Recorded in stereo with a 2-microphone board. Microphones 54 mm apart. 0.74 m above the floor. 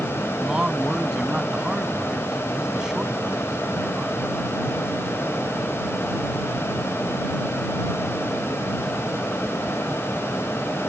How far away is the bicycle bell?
No bicycle bell in this recording.